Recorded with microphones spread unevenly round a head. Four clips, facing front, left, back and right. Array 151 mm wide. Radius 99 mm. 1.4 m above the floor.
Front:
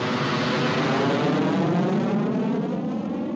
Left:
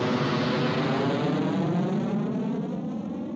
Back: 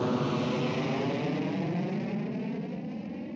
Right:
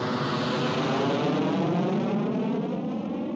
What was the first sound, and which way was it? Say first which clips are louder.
An aircraft: left 2 dB, front 4 dB; 95° left.